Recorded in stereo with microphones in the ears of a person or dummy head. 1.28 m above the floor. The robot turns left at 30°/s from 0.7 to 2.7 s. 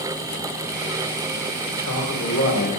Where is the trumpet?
I don't hear a trumpet.